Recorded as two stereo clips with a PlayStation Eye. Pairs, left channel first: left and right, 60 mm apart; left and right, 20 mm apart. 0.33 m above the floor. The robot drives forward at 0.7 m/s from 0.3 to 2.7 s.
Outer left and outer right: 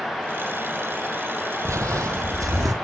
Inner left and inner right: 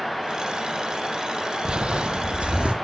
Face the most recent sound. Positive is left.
turn(degrees=-75)  # may be behind; listen again after turning